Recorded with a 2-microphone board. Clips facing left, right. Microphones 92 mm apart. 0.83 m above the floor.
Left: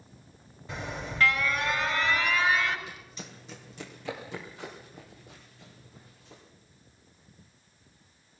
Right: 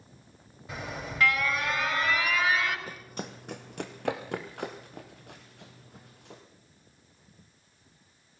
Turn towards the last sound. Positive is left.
turn(degrees=-65)  # may be behind; listen again after turning